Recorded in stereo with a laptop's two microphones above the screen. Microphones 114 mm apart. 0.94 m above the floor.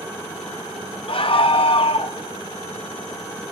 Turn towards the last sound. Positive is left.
turn(degrees=50)  # may be behind; listen again after turning